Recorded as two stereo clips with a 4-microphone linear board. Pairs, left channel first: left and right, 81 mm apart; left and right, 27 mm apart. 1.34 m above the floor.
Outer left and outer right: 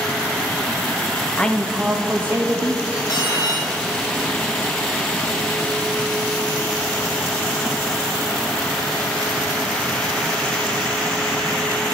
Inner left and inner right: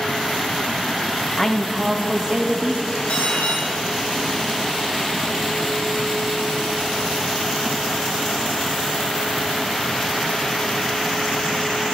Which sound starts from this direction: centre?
A man speaking, at 1.4 s.